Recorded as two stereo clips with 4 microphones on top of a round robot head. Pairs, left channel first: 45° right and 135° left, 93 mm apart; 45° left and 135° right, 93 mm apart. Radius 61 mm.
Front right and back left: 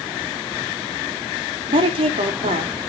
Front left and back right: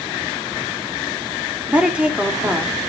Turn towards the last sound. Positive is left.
turn(degrees=150)